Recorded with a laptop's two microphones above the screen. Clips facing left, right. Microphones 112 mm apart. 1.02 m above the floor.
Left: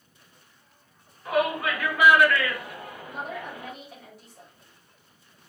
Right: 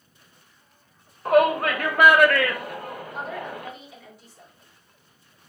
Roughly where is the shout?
Right.